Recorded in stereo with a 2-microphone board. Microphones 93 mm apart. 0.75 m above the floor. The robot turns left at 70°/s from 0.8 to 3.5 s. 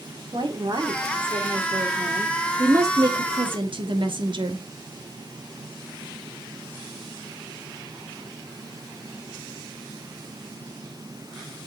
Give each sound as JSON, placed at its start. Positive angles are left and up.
{"t": 0.3, "sound": "a woman speaking", "azimuth_deg": -55, "distance_m": 1.8}
{"t": 2.6, "sound": "a woman speaking", "azimuth_deg": -30, "distance_m": 1.6}